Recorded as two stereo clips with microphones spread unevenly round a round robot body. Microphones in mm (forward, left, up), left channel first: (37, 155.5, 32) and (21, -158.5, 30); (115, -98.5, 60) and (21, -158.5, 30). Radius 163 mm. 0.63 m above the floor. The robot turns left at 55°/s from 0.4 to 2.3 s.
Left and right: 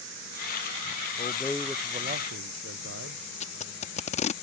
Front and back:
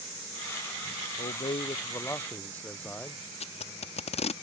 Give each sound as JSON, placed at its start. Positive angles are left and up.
{"t": 1.2, "sound": "a man speaking", "azimuth_deg": 20}
{"t": 3.4, "sound": "tape being pulled", "azimuth_deg": 25}